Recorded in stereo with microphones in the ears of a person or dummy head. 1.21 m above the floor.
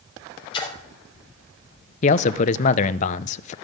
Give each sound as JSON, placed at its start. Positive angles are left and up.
{"t": 0.5, "sound": "a splash", "side_deg": 25, "distance_m": 3.0}
{"t": 2.0, "sound": "a man speaking", "side_deg": 40, "distance_m": 0.6}